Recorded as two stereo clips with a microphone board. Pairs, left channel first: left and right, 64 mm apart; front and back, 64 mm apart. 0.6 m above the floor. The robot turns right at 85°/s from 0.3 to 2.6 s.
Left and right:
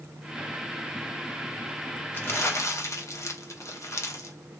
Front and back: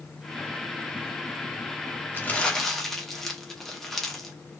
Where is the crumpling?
45° left, 0.7 m; by 4.4 s 85° left, 0.7 m.